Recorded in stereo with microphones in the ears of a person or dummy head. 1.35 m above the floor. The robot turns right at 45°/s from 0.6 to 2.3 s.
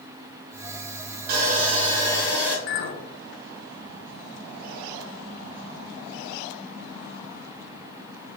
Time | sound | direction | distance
1.3 | sawing | 55° right | 0.8 m
2.7 | a clink | 50° left (ahead or behind) | 0.6 m